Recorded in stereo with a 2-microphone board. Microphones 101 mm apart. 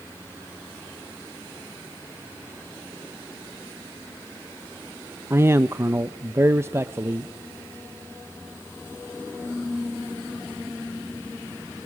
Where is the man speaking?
25° right (ahead or behind), 0.6 m.